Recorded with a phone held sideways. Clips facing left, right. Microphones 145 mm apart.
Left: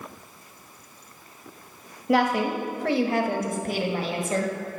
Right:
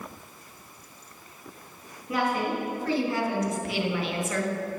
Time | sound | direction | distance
2.1 | a woman speaking | 90° left | 1.3 m